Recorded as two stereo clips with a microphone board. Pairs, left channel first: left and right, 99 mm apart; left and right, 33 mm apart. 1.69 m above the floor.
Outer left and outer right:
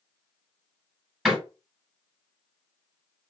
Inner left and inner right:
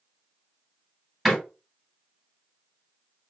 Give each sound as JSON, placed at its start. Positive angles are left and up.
{"t": 1.2, "sound": "a door slam", "side_deg": 0, "distance_m": 1.9}